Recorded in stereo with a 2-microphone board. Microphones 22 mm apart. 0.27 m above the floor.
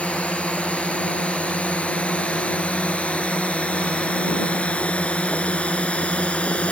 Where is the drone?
75° left (ahead or behind); by 6.7 s 65° left (ahead or behind).